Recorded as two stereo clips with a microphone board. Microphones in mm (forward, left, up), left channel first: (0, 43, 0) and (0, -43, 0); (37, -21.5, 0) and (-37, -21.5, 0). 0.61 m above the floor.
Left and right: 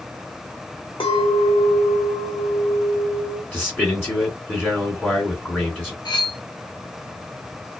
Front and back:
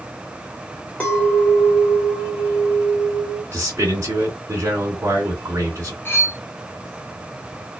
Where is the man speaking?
155° left, 1.5 m.